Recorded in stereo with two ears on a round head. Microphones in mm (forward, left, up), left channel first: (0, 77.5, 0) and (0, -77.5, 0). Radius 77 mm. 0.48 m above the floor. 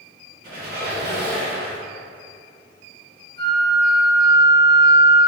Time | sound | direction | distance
0.4 | a squeak | 65° right (ahead or behind) | 1.5 m
3.4 | a flute | 35° right (ahead or behind) | 0.8 m